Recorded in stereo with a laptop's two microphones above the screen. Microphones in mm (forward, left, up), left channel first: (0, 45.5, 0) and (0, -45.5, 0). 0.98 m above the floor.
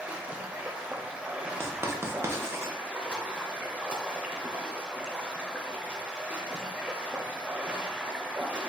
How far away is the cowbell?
I don't hear a cowbell.